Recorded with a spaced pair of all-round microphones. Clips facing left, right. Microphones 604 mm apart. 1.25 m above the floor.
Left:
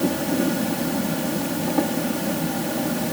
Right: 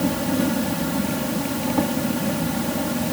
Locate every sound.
0.0 s an insect: 30° right (ahead or behind)